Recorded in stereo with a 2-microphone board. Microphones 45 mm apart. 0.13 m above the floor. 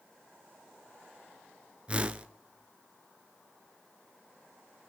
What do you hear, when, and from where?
1.9 s a whoosh: 25° right (ahead or behind), 0.7 m